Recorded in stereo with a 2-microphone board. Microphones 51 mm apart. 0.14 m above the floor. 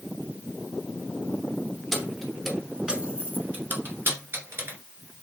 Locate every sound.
1.9 s keys jangling: 5° left (ahead or behind), 1.3 m; by 4.8 s 55° right (ahead or behind), 1.6 m